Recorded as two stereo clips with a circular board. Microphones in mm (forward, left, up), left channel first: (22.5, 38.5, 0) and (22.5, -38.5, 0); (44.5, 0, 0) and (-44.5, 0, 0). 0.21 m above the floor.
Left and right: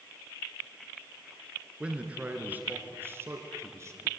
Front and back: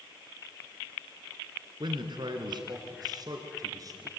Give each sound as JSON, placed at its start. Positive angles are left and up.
{"t": 1.8, "sound": "a man speaking", "azimuth_deg": -165, "distance_m": 3.5}